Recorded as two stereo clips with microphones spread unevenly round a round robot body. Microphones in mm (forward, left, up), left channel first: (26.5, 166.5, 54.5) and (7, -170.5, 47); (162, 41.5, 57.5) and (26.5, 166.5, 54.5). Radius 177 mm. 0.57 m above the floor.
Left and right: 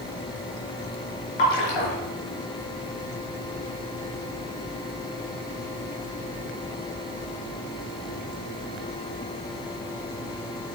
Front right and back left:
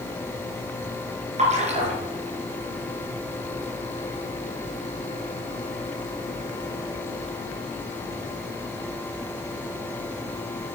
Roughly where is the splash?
Left.